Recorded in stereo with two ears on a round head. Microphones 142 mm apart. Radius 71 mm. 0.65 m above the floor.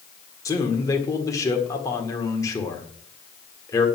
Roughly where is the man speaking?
Left.